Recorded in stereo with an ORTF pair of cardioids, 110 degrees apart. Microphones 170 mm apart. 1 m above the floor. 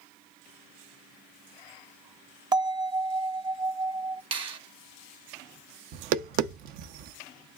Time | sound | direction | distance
2.5 | a bell | 25° right | 0.7 m
4.3 | a finger snap | 30° right | 0.9 m
5.9 | tapping | 65° right | 0.5 m